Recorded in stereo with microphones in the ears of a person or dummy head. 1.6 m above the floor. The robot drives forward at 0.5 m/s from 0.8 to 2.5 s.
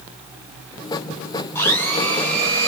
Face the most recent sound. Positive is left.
turn(degrees=10)  # may be behind; listen again after turning